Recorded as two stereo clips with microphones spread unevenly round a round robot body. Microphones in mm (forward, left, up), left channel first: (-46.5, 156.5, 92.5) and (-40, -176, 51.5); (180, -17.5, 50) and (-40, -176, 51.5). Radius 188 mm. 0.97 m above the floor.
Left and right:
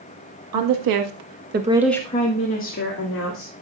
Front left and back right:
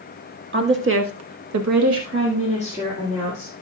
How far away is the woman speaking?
About 1.9 m.